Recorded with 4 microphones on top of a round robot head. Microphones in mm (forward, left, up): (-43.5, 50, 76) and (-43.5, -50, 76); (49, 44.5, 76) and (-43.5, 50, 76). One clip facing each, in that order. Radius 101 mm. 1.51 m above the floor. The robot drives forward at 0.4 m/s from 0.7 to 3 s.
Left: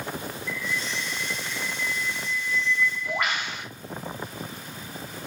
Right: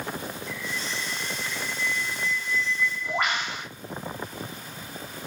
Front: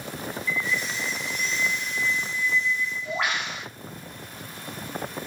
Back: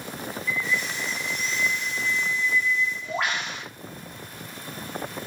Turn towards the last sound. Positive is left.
turn(degrees=-145)